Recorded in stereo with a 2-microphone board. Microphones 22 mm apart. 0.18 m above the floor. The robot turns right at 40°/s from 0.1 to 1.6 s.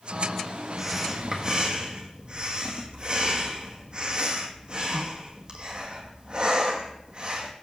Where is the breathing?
170° right, 1.8 m; by 7.5 s 135° right, 1.8 m.